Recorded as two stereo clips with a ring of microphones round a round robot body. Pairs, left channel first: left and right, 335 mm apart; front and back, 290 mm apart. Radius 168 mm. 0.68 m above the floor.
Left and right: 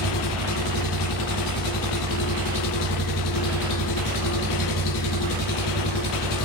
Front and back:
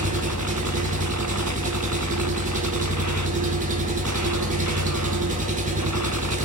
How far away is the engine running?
About 2 m.